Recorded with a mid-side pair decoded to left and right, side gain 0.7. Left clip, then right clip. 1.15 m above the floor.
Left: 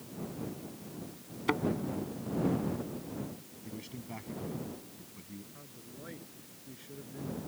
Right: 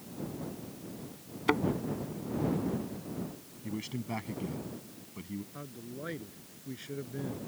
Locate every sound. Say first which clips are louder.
1.5 s a thud: right 3 dB; 10° right
3.6 s a man speaking: right 7 dB; 35° right
5.5 s a man speaking: right 7 dB; 35° right